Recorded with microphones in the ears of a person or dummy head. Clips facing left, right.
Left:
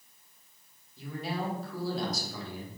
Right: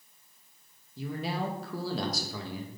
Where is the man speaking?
65° right (ahead or behind), 1.5 m.